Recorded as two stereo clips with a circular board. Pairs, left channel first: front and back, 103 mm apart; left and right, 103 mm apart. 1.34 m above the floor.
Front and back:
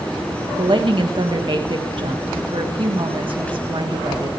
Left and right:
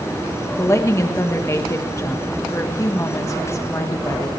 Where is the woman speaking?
150° left, 1.5 m.